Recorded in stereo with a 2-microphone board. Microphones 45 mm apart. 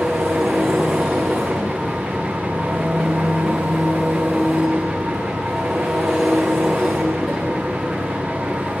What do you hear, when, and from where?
0.0 s an engine running: 5° right (ahead or behind), 5.5 m